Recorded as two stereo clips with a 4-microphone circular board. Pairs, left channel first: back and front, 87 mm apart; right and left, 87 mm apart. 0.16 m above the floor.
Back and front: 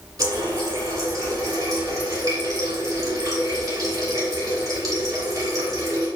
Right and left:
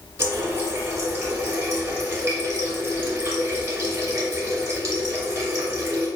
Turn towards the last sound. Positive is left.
turn(degrees=40)